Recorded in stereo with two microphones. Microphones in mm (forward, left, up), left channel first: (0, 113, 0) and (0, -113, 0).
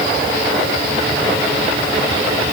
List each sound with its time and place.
Only background noise.